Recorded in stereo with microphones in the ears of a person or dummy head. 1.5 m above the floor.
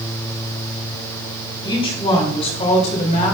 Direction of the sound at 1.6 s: 30° left (ahead or behind).